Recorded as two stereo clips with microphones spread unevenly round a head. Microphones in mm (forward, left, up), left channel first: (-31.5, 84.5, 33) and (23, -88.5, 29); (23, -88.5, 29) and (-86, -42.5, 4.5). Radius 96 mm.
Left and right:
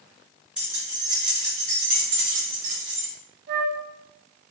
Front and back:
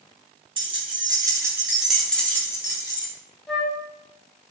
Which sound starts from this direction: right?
A flute, at 3.5 s.